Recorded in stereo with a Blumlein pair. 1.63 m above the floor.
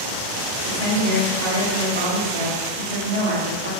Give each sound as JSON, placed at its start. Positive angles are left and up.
{"t": 0.6, "sound": "a woman speaking", "azimuth_deg": -65, "distance_m": 1.9}